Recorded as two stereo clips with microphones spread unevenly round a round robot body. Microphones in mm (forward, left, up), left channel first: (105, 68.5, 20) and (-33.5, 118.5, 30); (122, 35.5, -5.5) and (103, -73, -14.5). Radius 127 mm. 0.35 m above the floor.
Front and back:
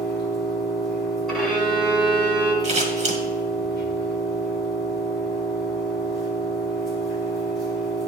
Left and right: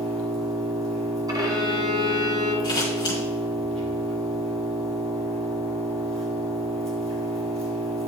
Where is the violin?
100° right, 1.0 m.